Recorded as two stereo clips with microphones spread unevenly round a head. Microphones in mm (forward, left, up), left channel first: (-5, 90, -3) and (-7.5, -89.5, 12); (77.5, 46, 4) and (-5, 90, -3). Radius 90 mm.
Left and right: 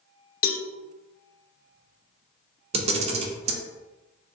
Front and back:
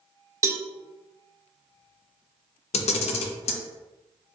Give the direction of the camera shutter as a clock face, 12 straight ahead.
1 o'clock.